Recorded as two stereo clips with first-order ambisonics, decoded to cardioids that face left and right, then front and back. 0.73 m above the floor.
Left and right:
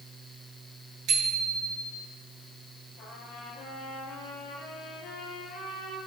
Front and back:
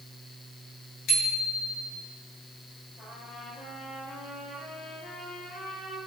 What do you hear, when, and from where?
1.1 s a bicycle bell: 45° right, 8 m
3.0 s a trumpet: 45° left, 8 m